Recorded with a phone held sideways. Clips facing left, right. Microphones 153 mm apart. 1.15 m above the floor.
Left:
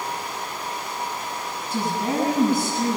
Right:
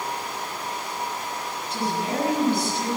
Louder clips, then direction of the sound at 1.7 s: Left 2 dB; 45° left (ahead or behind).